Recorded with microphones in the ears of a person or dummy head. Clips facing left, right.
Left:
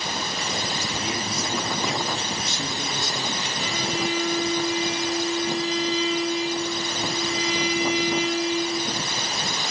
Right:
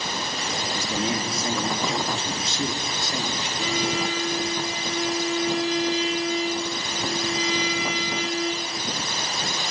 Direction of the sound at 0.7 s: 30° right (ahead or behind).